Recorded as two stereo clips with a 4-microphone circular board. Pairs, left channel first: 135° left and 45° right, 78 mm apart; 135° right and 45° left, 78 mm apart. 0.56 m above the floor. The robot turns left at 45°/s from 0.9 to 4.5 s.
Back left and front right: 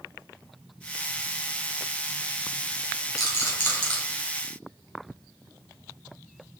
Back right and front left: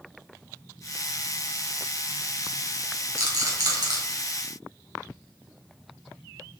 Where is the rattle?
95° left, 3 m; by 4.0 s 60° left, 3 m.